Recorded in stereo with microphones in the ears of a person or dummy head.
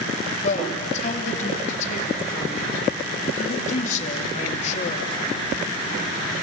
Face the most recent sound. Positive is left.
turn(degrees=40)  # may be behind; listen again after turning